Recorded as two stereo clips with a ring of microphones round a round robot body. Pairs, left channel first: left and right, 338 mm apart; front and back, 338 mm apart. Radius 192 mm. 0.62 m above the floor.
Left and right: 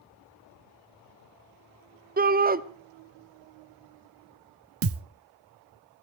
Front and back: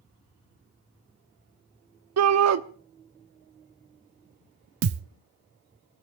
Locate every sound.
2.2 s a shout: 150° right, 1.3 m
4.8 s a thud: 135° right, 0.7 m